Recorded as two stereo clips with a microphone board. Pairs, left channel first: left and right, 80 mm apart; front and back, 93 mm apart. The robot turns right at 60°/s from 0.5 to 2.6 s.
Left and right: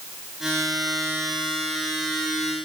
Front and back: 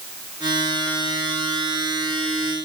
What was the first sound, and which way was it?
Only background noise.